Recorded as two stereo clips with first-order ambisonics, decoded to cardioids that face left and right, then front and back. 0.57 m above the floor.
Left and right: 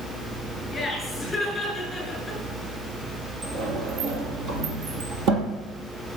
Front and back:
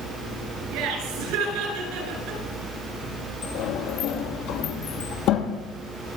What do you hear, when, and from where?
0.7 s laughter: 170° left, 8 m; by 2.4 s straight behind, 8 m
3.4 s a sliding door: 45° right, 2.5 m